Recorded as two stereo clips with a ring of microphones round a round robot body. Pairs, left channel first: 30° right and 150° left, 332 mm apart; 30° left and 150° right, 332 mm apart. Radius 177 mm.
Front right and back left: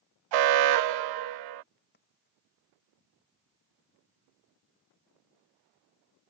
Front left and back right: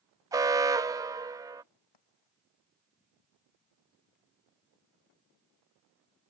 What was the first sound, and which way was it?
An alarm, 130° left.